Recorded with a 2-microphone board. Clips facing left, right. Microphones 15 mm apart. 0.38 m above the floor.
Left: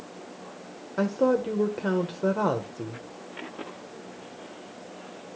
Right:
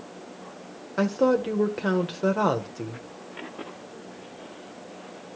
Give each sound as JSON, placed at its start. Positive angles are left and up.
{"t": 1.0, "sound": "a woman speaking", "side_deg": -25, "distance_m": 0.9}